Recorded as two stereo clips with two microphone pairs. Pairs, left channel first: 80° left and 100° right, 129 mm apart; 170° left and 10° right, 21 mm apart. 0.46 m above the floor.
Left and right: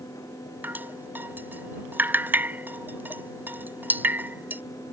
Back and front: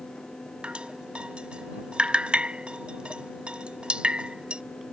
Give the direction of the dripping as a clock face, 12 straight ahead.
1 o'clock.